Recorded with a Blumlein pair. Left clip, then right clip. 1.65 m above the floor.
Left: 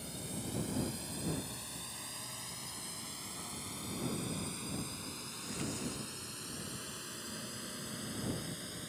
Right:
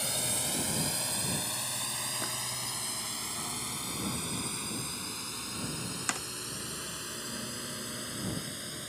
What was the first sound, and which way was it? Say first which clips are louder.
A drone: right 11 dB; 55° right.